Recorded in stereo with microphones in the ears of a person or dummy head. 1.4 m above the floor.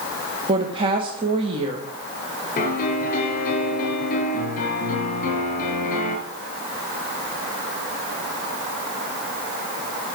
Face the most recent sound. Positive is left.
turn(degrees=45)  # may be behind; listen again after turning